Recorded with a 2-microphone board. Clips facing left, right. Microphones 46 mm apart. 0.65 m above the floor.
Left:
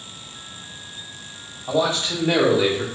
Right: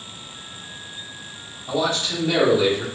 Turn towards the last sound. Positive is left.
turn(degrees=30)  # may be behind; listen again after turning